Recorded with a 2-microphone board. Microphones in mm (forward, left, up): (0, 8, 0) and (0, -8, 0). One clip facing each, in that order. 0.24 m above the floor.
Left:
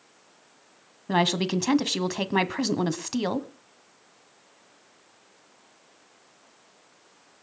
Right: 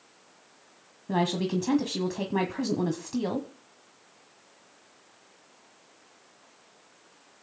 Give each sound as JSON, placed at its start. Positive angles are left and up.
{"t": 1.1, "sound": "a woman speaking", "side_deg": 45, "distance_m": 1.3}